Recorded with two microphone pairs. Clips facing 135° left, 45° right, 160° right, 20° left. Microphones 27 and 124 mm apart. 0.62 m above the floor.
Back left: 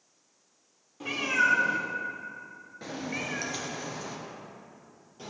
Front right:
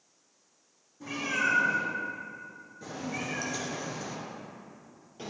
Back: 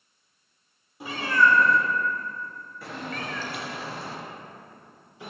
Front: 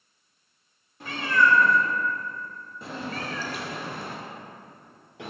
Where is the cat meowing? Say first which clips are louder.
Back left 4 dB, back 1 dB; 120° left, 2.5 m; by 5.3 s 25° left, 2.5 m.